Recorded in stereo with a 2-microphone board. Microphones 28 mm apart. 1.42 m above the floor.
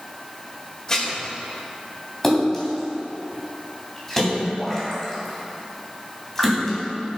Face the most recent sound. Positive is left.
turn(degrees=10)  # may be behind; listen again after turning